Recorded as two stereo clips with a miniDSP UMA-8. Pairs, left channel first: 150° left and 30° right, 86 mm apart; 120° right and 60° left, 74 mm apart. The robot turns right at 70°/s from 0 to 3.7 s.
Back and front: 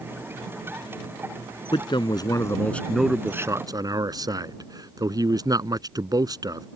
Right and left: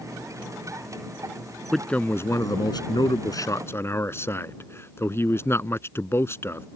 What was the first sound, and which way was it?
A man speaking, 155° left.